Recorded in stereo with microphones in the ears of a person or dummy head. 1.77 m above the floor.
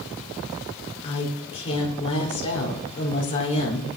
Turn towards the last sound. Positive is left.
turn(degrees=35)  # may be behind; listen again after turning